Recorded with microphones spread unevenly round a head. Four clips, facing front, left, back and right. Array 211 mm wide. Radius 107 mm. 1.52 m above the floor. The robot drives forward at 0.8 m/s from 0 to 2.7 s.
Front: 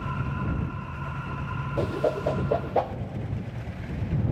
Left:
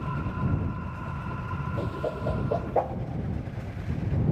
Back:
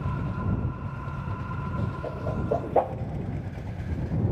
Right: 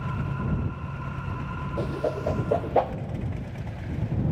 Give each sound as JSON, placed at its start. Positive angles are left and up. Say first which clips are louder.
{"t": 1.8, "sound": "a whoosh", "louder": "right 4 dB, front 12 dB", "azimuth_deg": -15, "distance_m": 0.8}